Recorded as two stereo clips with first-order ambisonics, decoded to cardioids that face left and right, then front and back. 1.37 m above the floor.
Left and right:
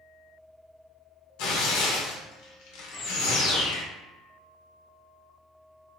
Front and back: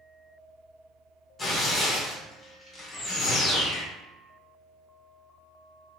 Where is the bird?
45° left, 1.6 m.